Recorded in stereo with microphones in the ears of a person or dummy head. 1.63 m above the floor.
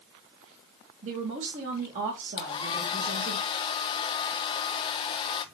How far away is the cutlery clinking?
I don't hear cutlery clinking.